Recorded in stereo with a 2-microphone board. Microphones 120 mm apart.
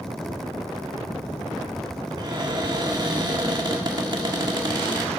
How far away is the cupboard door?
About 1.5 m.